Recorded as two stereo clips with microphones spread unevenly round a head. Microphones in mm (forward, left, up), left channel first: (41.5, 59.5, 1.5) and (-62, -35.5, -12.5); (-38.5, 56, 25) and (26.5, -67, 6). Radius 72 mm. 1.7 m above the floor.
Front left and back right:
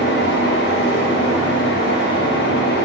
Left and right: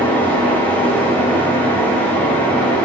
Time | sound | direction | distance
0.0 | a fan | 35° left | 1.4 m